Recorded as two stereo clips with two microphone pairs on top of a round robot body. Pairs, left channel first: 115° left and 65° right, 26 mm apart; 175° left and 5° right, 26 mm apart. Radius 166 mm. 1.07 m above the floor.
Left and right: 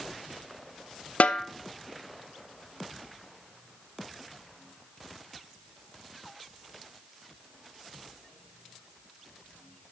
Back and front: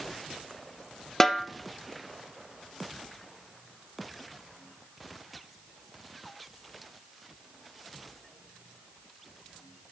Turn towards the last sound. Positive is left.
turn(degrees=100)